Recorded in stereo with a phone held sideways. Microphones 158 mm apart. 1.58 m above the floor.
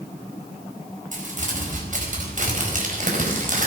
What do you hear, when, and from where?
1.1 s crumpling: 55° right (ahead or behind), 4.5 m